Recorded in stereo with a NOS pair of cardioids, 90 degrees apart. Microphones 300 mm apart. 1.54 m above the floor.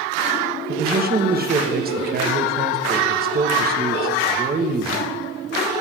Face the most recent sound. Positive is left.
turn(degrees=-30)